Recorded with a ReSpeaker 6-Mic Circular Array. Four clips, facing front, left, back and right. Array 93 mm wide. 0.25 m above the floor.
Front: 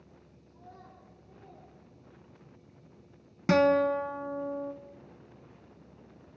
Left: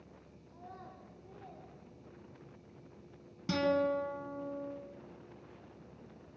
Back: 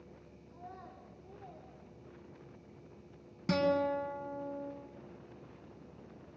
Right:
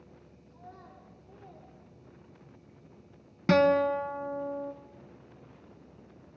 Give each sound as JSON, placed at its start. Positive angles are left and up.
{"t": 0.5, "sound": "a child speaking", "azimuth_deg": 150, "distance_m": 9.5}
{"t": 3.5, "sound": "a guitar", "azimuth_deg": -45, "distance_m": 1.6}